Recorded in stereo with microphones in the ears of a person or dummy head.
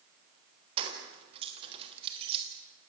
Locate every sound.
0.8 s keys jangling: 30° right (ahead or behind), 3.5 m